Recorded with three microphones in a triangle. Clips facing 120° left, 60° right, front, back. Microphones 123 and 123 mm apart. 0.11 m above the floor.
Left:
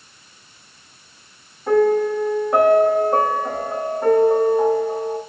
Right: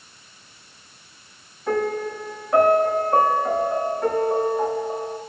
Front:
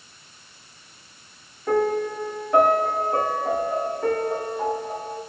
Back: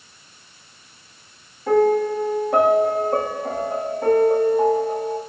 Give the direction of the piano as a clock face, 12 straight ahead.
6 o'clock.